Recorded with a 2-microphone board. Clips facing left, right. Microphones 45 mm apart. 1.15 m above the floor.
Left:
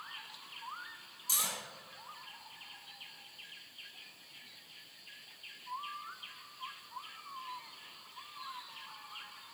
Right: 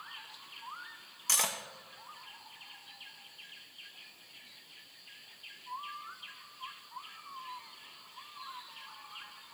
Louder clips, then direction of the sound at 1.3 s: Right 4 dB; 60° right (ahead or behind).